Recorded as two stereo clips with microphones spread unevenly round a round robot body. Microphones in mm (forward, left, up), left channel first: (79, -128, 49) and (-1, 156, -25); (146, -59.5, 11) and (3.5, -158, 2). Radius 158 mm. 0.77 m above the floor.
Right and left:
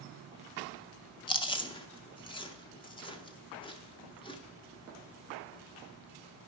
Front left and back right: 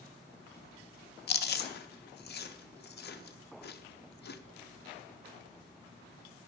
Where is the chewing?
5° left, 0.6 m.